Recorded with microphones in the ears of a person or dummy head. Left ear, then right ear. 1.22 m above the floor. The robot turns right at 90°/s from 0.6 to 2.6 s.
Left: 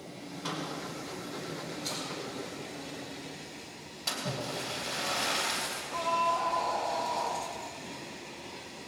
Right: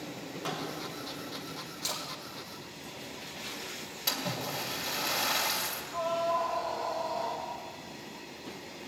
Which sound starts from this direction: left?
A scream, at 5.9 s.